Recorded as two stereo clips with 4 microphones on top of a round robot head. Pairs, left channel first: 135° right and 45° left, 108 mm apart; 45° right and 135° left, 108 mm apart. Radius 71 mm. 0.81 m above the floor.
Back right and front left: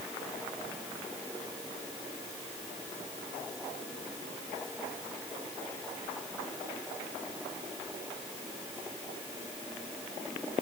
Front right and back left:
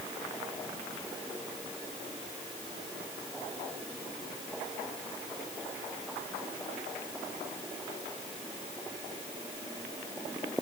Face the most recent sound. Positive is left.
No sound to turn to.